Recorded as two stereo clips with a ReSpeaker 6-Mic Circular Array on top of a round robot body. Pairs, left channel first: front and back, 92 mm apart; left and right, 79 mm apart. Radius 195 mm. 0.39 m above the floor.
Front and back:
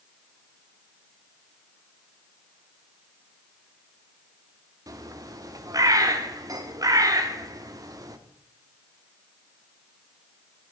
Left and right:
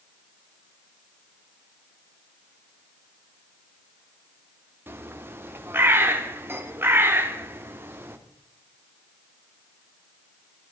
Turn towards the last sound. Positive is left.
turn(degrees=-145)